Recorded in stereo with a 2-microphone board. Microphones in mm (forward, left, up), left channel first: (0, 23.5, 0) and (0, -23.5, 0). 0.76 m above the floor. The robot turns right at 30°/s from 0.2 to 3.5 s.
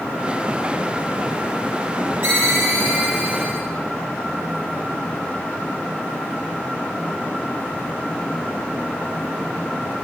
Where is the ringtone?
100° right, 4 m; by 3.6 s 65° right, 4 m.